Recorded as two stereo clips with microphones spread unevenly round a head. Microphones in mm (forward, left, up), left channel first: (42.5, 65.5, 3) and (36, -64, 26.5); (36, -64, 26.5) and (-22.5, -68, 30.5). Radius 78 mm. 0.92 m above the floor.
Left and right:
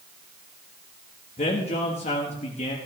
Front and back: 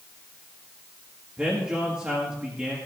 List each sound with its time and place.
1.4 s a man speaking: 105° left, 1.4 m